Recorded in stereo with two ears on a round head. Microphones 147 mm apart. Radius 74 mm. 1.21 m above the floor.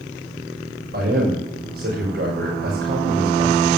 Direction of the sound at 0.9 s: 65° right (ahead or behind).